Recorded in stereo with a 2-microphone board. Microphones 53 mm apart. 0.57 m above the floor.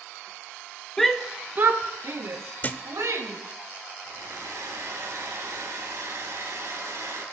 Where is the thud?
35° left (ahead or behind), 0.7 m.